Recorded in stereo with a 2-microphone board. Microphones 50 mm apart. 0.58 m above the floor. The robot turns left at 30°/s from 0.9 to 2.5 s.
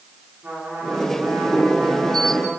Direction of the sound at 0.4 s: 50° right.